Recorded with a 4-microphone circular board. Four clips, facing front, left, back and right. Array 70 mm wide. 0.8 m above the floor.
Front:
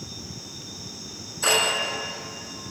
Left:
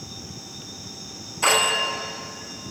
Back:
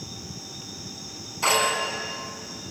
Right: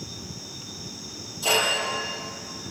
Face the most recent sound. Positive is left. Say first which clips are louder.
# left 3 dB, back 1 dB
turn(degrees=120)